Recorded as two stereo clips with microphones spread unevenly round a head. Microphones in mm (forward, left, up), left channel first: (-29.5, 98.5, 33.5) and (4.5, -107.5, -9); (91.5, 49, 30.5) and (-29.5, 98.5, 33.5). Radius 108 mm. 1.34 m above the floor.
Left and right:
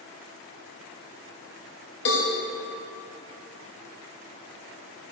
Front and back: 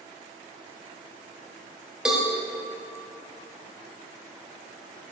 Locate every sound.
2.0 s a cowbell: 75° left, 2.5 m